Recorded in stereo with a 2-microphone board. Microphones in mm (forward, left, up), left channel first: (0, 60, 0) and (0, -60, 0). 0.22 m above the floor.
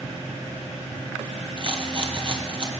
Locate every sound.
1.6 s a rattle: 45° right (ahead or behind), 1.8 m